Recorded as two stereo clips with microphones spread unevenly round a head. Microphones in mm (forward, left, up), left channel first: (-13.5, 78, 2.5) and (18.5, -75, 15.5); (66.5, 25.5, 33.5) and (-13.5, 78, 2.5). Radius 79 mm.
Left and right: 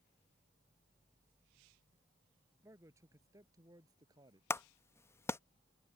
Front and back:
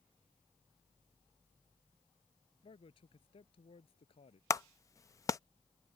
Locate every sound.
2.6 s a man speaking: 5° right; by 4.4 s 10° right
4.5 s a clap: 30° left